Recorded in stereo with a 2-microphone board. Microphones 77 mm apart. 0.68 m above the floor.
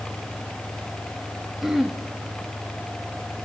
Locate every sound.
1.6 s throat clearing: 5° right (ahead or behind), 0.8 m